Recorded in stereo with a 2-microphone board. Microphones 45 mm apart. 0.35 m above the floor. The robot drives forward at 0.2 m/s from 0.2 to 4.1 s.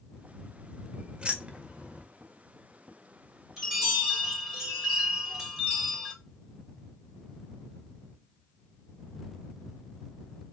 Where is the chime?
15° right (ahead or behind), 2.5 m.